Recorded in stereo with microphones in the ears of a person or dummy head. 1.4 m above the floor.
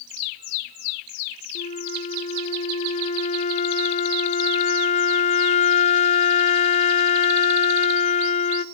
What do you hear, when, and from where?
1.6 s a flute: 35° left (ahead or behind), 0.7 m